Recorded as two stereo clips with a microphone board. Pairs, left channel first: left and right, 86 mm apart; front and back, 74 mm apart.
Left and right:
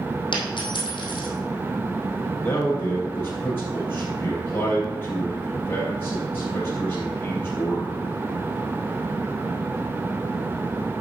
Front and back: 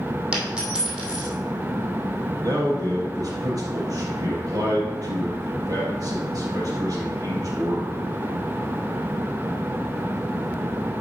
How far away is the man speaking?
About 3.5 m.